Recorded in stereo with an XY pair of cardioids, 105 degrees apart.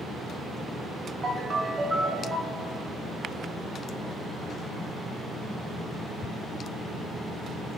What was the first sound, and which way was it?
A ringtone, 30° right.